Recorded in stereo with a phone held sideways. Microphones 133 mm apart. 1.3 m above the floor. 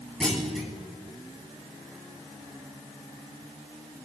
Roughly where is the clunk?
Centre.